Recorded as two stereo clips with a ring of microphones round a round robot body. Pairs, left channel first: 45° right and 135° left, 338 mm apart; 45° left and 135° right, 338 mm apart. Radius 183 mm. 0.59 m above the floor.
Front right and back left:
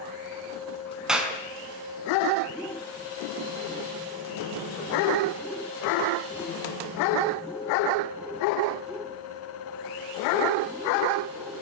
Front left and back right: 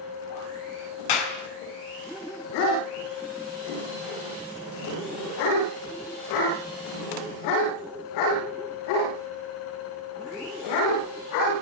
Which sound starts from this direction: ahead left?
A clap, at 1.1 s.